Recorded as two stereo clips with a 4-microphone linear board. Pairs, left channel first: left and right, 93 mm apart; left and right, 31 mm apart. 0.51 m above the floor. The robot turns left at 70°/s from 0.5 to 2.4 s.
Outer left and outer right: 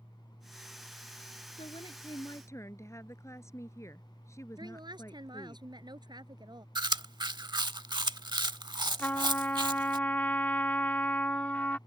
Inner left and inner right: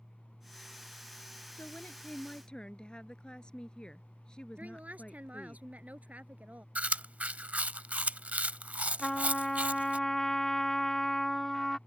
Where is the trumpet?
20° left (ahead or behind).